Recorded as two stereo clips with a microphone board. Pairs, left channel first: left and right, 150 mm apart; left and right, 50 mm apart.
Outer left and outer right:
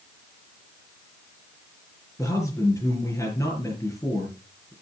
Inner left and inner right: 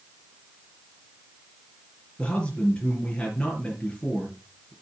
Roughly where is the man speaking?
Centre.